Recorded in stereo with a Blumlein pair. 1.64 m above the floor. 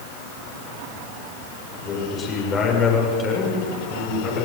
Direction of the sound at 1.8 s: 20° left.